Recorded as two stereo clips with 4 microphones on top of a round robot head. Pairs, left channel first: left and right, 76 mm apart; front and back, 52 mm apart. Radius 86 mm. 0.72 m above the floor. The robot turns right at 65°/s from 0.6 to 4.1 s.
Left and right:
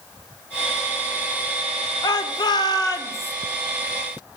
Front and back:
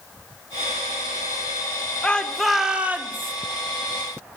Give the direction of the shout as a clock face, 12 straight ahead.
10 o'clock.